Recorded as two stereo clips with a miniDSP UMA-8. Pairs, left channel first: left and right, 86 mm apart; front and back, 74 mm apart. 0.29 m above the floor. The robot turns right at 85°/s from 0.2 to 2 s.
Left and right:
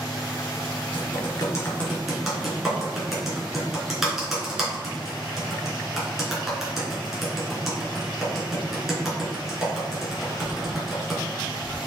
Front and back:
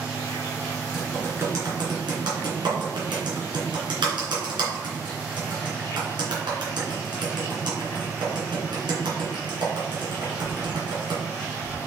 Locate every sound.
0.9 s typing on a keyboard: 95° left, 3 m; by 11.2 s 175° right, 3 m